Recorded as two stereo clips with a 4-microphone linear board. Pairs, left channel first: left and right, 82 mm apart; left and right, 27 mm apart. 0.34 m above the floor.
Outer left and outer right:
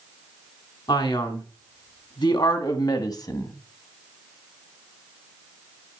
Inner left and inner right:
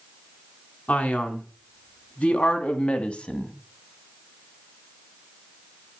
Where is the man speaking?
70° left (ahead or behind), 3 m; by 3.5 s 45° left (ahead or behind), 2 m.